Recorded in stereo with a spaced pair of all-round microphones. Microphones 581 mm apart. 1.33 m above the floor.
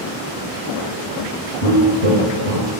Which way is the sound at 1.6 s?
30° right (ahead or behind).